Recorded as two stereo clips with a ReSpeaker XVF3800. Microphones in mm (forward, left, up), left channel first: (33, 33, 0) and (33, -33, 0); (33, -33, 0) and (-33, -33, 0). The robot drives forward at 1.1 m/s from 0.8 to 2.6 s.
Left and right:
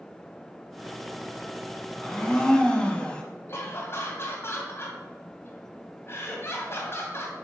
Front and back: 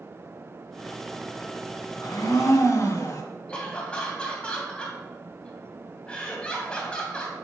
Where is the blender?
10° left, 1.6 m; by 3.2 s 15° left, 1.0 m.